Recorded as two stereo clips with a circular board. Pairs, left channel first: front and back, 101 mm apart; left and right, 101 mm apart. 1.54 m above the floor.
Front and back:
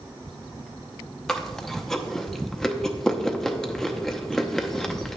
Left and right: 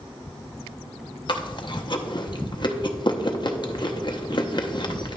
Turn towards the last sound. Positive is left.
turn(degrees=85)